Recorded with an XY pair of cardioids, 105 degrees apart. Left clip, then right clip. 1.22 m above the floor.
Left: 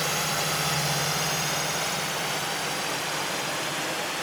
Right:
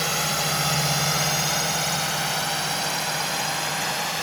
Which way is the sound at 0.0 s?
30° right.